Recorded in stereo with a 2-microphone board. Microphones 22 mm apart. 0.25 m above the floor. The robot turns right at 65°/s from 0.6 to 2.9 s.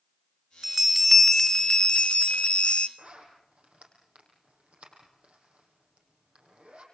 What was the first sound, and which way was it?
A bell, 20° right.